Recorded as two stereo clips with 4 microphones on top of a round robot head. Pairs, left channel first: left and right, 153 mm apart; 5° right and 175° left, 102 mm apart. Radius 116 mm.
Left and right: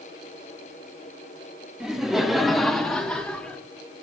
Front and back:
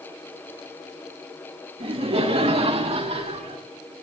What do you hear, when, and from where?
1.8 s laughter: 175° right, 1.6 m; by 3.6 s 175° left, 2.5 m